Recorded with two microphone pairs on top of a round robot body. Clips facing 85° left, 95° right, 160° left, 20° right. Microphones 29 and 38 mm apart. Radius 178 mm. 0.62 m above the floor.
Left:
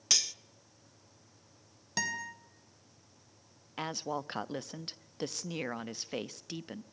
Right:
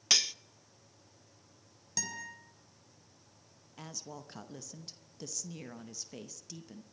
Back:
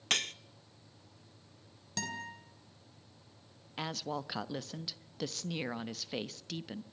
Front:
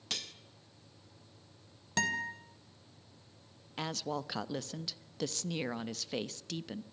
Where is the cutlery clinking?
170° right, 0.5 m.